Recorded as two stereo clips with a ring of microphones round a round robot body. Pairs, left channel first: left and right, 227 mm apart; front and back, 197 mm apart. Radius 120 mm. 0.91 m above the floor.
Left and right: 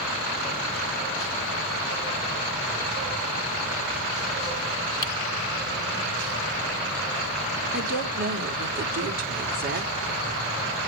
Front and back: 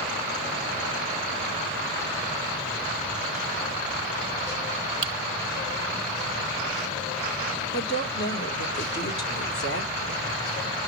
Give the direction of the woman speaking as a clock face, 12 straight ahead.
1 o'clock.